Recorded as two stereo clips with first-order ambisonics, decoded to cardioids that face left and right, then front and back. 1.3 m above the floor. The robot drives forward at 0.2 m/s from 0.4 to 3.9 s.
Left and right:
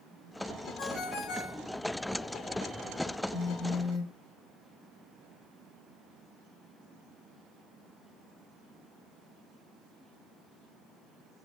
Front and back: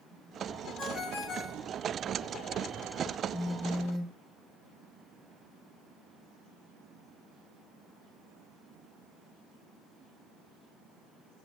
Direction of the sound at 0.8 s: 60° left.